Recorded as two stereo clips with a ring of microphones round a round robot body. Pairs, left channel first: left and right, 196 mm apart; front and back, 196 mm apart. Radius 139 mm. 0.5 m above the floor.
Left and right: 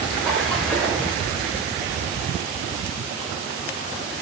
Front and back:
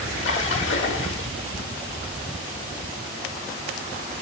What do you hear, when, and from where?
0.2 s a splash: straight ahead, 1.0 m